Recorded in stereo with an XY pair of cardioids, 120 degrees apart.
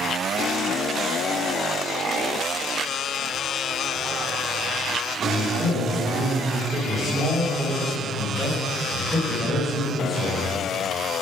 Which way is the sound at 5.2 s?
40° right.